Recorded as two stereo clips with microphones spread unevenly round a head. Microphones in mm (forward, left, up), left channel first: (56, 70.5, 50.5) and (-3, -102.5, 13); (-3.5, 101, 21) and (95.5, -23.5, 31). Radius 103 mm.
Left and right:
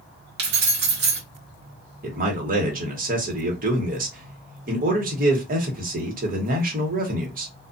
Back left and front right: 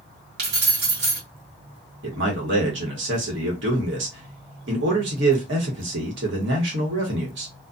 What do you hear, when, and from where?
0.4 s keys jangling: 75° right, 1.2 m
2.0 s a man speaking: 65° right, 1.3 m